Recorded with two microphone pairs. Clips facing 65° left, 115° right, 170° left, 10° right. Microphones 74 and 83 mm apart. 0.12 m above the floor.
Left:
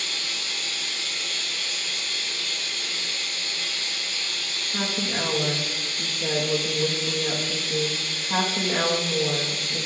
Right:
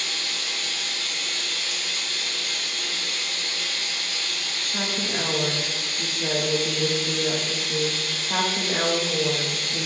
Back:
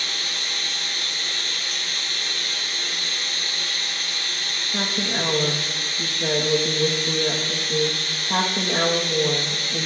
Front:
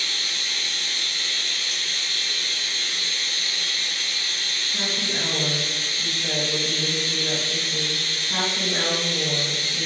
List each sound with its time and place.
0.0 s running water: 140° right, 4 m
4.7 s a woman speaking: 160° left, 4.5 m